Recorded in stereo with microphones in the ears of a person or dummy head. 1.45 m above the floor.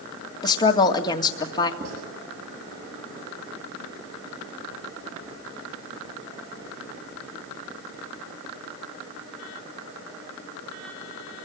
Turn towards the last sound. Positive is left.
turn(degrees=-50)  # may be behind; listen again after turning